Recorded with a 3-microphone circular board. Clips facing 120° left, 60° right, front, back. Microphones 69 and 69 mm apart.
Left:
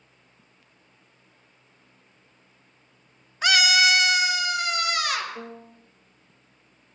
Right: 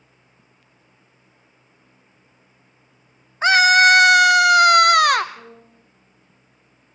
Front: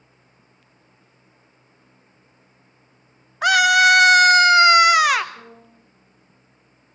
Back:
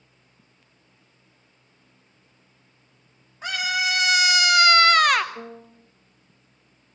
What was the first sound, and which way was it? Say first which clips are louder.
A scream: right 8 dB, front 12 dB; straight ahead.